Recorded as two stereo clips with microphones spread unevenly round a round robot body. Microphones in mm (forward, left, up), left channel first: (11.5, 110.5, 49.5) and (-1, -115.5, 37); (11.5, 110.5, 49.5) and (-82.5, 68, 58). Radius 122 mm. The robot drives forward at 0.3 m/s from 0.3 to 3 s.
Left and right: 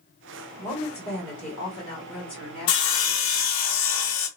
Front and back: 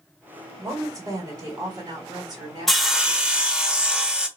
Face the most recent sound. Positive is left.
turn(degrees=120)